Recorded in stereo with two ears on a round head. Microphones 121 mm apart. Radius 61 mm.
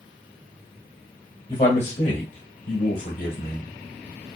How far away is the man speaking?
About 1.8 m.